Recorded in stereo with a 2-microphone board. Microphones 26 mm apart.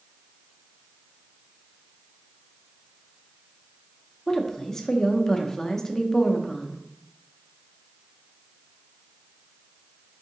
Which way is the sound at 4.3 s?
20° left (ahead or behind).